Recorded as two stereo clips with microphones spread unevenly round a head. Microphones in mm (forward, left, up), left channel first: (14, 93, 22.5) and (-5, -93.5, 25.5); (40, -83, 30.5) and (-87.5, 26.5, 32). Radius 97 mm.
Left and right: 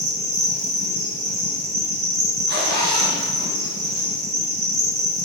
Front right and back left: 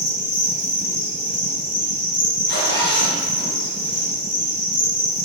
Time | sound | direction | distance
0.0 | an insect | 80° right | 2 m
2.5 | a zipper | 65° right | 3.5 m